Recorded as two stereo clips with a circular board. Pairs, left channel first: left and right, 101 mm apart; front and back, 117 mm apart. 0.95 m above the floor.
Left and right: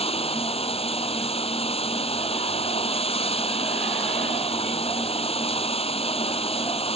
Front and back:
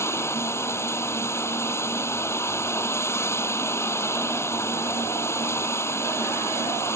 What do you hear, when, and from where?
0.0 s running water: 70° left